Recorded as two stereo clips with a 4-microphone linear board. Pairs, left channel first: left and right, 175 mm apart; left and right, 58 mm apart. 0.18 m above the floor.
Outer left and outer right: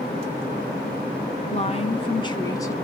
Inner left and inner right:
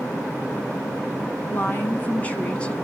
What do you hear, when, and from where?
1.5 s a woman speaking: 35° left (ahead or behind), 2 m; by 2.8 s 15° left (ahead or behind), 2 m